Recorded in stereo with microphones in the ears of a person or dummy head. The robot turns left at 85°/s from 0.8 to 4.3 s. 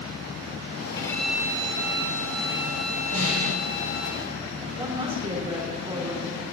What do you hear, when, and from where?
1.0 s a violin: 25° left, 3 m; by 4.1 s 115° left, 3 m
3.1 s a snare drum: 130° right, 7 m; by 3.6 s 170° right, 7 m
4.8 s a woman speaking: 30° right (ahead or behind), 3.5 m